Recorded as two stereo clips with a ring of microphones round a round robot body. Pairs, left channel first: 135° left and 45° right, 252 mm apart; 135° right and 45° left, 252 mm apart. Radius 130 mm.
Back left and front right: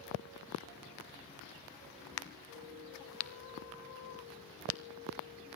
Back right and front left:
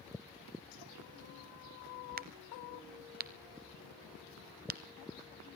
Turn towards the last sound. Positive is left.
turn(degrees=100)